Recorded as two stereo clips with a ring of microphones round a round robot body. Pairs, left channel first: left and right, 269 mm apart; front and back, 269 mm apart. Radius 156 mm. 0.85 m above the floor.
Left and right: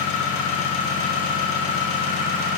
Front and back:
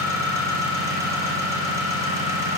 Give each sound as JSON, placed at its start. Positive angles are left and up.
{"t": 0.0, "sound": "an engine running", "azimuth_deg": 100, "distance_m": 3.5}